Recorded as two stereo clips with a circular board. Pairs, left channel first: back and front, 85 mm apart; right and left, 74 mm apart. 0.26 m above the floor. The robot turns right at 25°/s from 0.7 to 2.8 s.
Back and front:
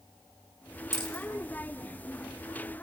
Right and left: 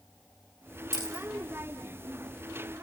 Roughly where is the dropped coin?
Behind left.